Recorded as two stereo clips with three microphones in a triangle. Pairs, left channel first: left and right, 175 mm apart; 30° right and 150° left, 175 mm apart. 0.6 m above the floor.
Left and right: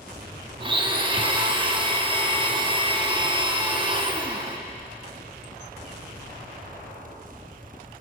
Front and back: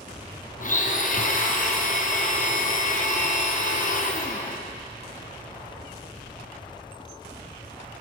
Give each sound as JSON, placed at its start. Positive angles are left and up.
{"t": 0.6, "sound": "a blender", "azimuth_deg": -40, "distance_m": 0.6}